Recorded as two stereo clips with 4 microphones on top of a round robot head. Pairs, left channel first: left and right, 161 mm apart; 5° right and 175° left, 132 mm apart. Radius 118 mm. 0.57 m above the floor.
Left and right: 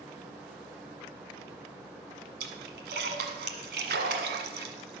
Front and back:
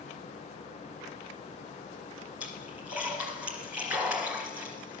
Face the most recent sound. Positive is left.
turn(degrees=-100)